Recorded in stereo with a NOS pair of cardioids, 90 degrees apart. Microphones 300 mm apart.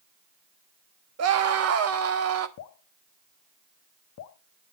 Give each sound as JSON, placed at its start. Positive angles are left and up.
{"t": 1.2, "sound": "a scream", "azimuth_deg": -55, "distance_m": 1.4}
{"t": 2.6, "sound": "dripping", "azimuth_deg": 70, "distance_m": 1.1}